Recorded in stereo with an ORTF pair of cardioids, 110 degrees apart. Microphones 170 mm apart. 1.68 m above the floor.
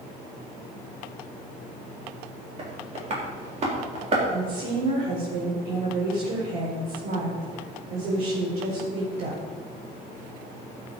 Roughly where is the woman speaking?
Ahead right.